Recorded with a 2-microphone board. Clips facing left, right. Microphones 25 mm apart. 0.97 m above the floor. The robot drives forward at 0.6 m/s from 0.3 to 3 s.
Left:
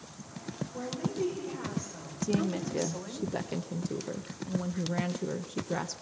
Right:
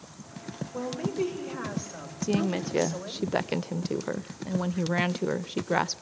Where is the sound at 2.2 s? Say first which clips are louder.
Right 3 dB; 30° right (ahead or behind), 0.7 m; by 6.0 s 50° right (ahead or behind), 0.5 m.